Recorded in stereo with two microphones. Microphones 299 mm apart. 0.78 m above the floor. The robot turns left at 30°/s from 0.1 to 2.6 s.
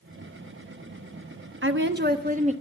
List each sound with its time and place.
1.6 s a woman speaking: 45° right (ahead or behind), 0.7 m; by 2.5 s 25° right (ahead or behind), 0.7 m